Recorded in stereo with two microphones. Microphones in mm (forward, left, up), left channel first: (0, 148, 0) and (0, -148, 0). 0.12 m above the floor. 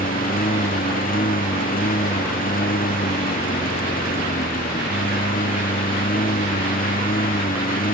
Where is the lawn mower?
30° left (ahead or behind).